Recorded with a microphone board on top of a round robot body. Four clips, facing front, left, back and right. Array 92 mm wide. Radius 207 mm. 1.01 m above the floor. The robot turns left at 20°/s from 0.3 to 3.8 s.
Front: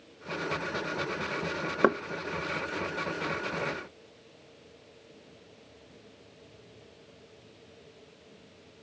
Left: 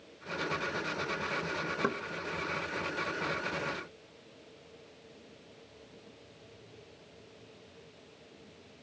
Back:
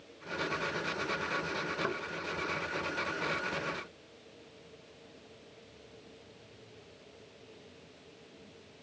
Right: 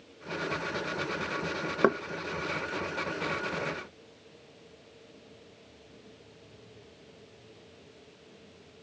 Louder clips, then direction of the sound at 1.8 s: Right 10 dB, front 15 dB; 35° right.